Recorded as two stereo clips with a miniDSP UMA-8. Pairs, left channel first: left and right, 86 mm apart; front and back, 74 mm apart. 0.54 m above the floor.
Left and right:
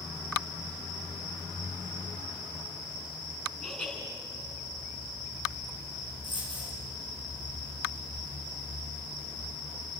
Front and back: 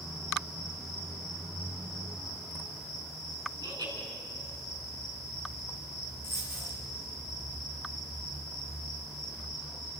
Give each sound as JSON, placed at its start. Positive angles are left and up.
{"t": 3.6, "sound": "laughter", "azimuth_deg": 175, "distance_m": 6.0}
{"t": 6.2, "sound": "a dropped coin", "azimuth_deg": -125, "distance_m": 4.5}